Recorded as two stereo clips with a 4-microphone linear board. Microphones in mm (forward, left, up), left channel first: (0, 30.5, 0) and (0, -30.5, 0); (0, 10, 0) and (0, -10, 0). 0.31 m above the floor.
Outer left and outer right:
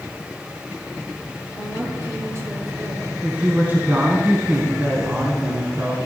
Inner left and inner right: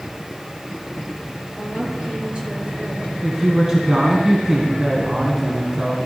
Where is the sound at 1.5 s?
45° right (ahead or behind), 5.5 m; by 3.1 s 55° right (ahead or behind), 5 m.